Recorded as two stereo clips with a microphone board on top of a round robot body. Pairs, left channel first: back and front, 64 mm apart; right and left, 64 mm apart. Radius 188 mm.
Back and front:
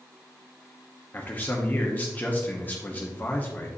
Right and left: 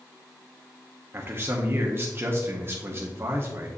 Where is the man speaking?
125° left, 1.3 m.